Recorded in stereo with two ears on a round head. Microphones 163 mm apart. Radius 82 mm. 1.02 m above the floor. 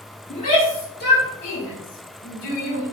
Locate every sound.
0.3 s a shout: 40° left (ahead or behind), 2 m; by 2.8 s 75° left (ahead or behind), 5.5 m